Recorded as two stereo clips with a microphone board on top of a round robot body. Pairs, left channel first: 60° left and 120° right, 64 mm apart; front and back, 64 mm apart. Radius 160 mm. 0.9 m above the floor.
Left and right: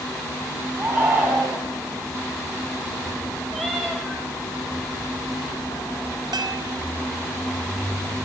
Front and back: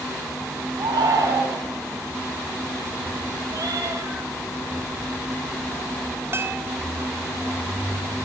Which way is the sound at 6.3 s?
125° right.